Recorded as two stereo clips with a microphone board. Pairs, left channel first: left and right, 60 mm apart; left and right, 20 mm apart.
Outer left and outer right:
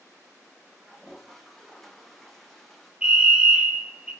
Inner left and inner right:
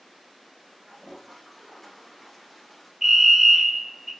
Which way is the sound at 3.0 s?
20° right (ahead or behind).